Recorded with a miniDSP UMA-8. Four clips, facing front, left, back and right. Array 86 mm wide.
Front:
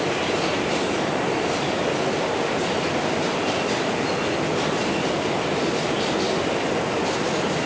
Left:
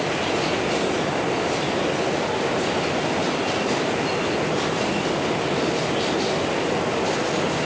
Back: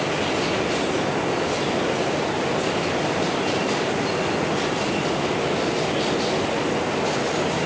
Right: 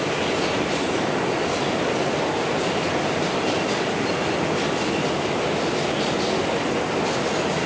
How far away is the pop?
I don't hear a pop.